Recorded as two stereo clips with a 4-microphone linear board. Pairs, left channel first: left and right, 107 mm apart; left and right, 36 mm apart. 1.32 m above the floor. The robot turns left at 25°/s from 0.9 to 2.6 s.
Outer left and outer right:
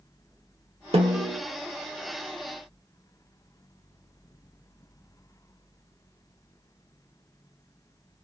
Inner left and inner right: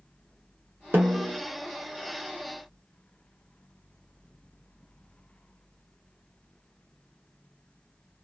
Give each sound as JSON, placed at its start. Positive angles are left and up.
{"t": 0.9, "sound": "a snare drum", "side_deg": -70, "distance_m": 1.1}